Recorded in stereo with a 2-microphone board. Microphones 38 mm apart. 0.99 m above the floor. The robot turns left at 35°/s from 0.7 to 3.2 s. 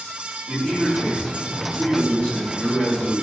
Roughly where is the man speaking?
Behind right.